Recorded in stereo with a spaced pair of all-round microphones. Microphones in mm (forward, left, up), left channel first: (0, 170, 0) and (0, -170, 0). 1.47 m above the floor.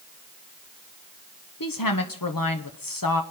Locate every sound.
1.6 s a woman speaking: 75° left (ahead or behind), 0.9 m